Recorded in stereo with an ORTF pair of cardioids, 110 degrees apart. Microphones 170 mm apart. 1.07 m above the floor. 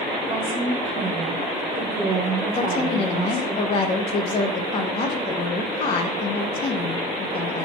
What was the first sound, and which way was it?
A woman speaking, 60° right.